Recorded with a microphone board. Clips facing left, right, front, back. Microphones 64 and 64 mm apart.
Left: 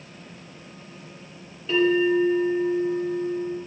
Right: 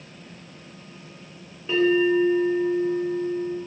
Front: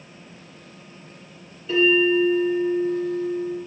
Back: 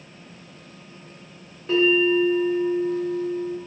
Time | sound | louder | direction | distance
1.7 | a bell | even, even | 150° right | 2.5 m